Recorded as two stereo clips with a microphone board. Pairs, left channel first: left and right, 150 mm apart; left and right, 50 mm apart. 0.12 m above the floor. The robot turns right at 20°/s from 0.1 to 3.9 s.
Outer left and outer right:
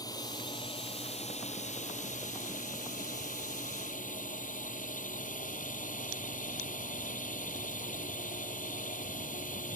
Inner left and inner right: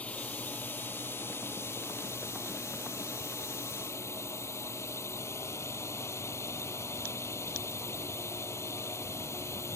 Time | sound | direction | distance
0.0 | a drone | 30° left | ?